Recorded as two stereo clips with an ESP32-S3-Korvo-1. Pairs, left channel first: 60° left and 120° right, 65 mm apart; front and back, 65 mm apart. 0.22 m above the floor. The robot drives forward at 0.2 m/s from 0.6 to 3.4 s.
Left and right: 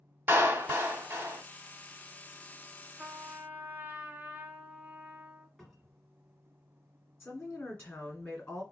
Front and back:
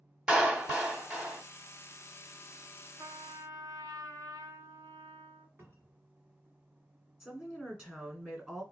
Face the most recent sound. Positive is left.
turn(degrees=110)